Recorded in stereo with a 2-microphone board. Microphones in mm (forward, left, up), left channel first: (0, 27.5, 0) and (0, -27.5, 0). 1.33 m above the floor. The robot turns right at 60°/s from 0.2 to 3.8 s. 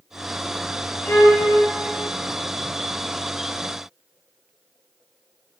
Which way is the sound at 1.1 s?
50° left (ahead or behind).